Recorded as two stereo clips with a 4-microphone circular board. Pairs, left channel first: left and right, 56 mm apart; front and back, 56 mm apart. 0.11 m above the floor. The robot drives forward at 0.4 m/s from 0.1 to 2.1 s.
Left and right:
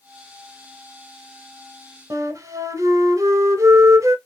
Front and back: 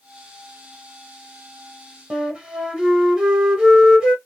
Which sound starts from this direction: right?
A flute, at 2.1 s.